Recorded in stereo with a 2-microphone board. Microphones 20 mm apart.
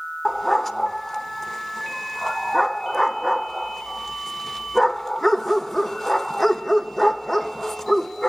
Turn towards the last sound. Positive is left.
turn(degrees=5)  # may be behind; listen again after turning